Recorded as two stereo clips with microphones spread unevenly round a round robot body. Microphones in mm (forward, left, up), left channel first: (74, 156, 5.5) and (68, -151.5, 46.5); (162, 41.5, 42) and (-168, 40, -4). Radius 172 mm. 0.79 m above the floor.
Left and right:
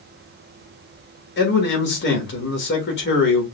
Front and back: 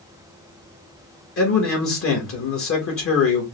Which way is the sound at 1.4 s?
50° left.